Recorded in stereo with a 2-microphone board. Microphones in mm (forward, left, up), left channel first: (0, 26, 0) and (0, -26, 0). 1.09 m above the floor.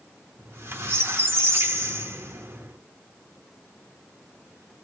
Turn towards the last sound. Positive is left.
turn(degrees=-50)  # may be behind; listen again after turning